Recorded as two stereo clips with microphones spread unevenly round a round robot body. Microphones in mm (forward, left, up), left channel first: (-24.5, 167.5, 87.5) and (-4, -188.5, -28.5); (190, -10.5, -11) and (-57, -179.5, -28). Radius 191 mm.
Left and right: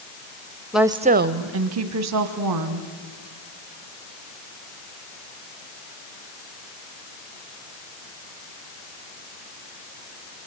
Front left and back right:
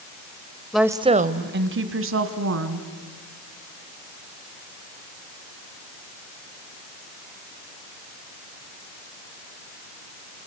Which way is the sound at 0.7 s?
60° right.